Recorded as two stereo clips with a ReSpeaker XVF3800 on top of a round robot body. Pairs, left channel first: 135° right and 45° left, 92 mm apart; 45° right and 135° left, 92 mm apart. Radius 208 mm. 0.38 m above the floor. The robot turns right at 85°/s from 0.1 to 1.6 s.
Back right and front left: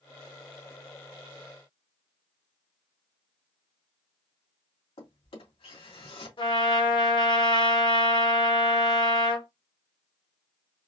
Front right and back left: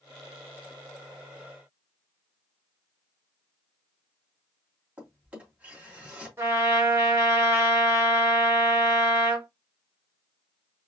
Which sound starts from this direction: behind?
A trumpet, at 6.4 s.